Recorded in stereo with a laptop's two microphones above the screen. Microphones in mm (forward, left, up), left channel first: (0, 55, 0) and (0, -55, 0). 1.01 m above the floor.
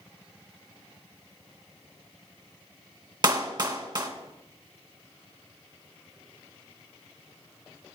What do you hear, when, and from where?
3.2 s a clap: 40° right (ahead or behind), 1.0 m